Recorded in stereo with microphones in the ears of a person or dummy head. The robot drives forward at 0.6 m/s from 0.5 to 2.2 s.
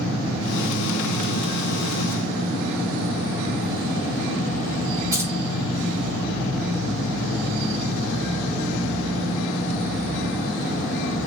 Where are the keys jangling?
15° right (ahead or behind), 0.6 m.